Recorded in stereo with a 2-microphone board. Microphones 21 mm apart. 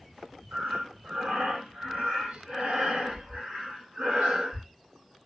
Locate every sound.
0.5 s breathing: 75° right (ahead or behind), 2 m